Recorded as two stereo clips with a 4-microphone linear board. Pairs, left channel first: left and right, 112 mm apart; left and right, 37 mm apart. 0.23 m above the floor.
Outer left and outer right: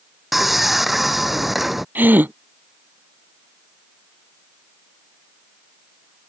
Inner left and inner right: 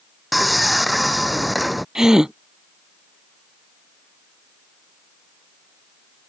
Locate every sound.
0.3 s sawing: centre (ahead or behind)
1.9 s a gasp: 15° right (ahead or behind)